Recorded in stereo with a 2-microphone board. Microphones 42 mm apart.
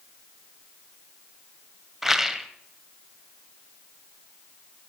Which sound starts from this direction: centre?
A rattle, at 2.0 s.